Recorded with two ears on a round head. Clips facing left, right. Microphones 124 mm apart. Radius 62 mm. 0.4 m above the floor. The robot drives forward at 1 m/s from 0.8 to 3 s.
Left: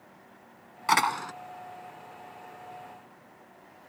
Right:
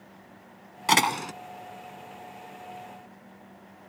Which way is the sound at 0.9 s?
30° right (ahead or behind).